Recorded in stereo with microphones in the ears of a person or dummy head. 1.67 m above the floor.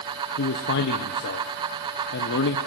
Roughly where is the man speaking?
Left.